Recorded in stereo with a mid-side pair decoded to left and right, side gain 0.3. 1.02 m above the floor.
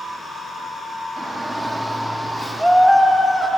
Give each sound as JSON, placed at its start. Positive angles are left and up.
{"t": 1.2, "sound": "a shout", "azimuth_deg": -50, "distance_m": 1.7}